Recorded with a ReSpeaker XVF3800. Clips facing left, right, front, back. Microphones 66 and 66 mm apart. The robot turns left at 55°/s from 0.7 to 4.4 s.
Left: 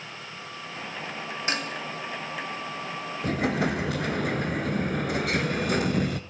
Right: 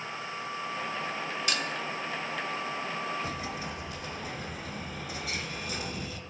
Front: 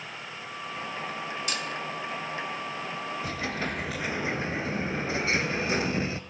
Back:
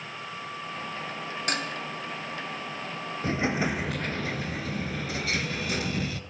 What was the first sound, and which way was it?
Dishes clattering, 145° left.